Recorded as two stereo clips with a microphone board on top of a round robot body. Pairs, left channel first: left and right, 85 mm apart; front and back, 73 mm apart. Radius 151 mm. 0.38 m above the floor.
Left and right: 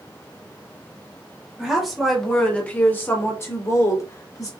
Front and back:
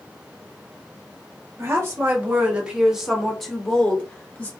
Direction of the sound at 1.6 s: 170° right.